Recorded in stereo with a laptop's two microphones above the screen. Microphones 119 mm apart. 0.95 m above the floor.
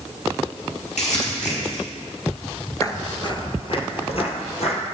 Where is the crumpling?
75° left (ahead or behind), 5 m.